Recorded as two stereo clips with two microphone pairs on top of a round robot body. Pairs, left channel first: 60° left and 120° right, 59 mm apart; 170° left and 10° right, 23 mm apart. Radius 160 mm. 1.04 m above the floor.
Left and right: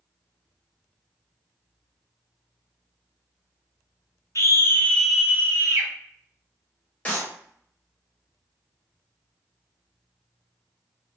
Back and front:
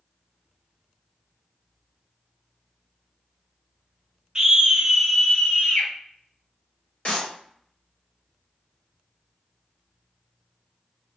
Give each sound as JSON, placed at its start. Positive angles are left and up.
{"t": 4.3, "sound": "a scream", "azimuth_deg": 55, "distance_m": 0.9}
{"t": 7.0, "sound": "a clap", "azimuth_deg": 130, "distance_m": 1.3}